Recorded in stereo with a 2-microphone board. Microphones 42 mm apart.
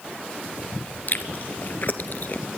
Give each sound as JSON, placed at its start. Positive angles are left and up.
{"t": 1.1, "sound": "chewing", "side_deg": 50, "distance_m": 1.1}